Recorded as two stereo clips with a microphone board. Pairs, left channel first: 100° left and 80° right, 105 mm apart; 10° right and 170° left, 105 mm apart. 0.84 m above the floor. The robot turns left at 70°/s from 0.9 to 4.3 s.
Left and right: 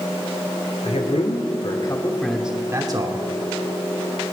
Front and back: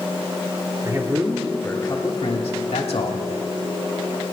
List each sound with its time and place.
0.8 s a man speaking: 115° left, 1.9 m; by 3.2 s 50° right, 1.9 m